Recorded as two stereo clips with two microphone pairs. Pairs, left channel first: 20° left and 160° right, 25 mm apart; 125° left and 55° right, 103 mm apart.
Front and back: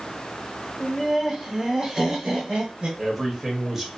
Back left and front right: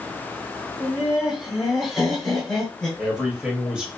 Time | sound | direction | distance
0.8 | laughter | 10° right | 1.1 m
3.0 | a man speaking | 120° right | 0.9 m